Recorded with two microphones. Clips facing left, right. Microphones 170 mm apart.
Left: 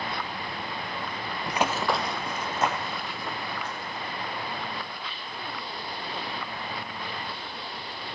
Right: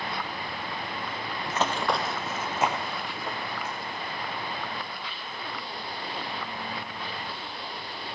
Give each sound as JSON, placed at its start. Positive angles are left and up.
{"t": 1.5, "sound": "running footsteps", "side_deg": 20, "distance_m": 0.7}